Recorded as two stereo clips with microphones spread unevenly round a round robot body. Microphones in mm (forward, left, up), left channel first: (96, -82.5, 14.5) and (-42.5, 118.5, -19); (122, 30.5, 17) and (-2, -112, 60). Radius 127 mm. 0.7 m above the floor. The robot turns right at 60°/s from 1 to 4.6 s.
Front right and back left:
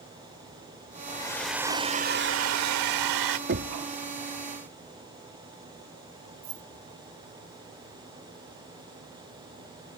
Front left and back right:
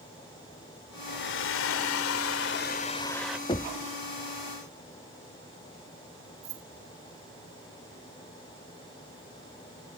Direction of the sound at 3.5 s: 100° left.